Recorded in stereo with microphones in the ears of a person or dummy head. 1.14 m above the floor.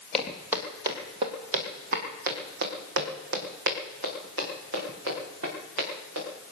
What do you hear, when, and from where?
0.1 s footsteps: centre (ahead or behind), 1.5 m; by 6.3 s 75° right (ahead or behind), 5.5 m